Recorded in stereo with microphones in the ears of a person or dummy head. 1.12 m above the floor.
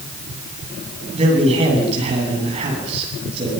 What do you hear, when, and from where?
1.1 s a man speaking: 30° right (ahead or behind), 9 m